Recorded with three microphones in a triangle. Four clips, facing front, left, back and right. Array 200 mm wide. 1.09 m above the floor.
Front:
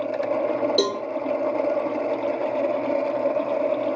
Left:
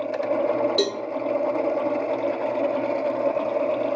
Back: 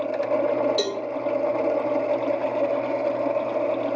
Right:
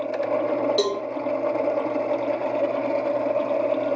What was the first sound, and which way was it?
A cowbell, 5° left.